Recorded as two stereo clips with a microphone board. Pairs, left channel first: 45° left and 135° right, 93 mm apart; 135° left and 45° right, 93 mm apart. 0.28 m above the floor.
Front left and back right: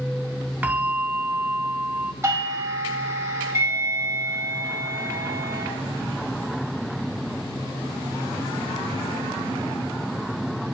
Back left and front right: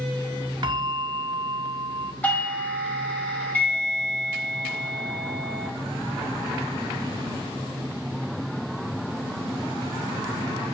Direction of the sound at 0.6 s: 65° right.